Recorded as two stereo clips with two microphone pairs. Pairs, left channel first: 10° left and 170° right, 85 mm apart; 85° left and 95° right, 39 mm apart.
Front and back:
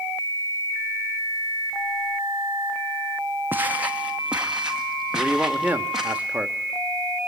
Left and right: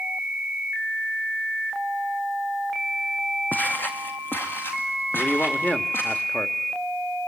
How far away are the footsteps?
About 1.2 m.